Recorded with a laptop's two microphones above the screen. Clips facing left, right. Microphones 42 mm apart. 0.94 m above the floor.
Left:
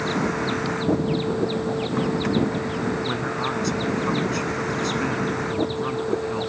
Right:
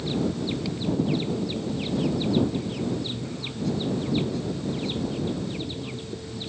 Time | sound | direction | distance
0.0 | a vehicle | 75° left (ahead or behind) | ?
3.0 | a man speaking | 85° left | ?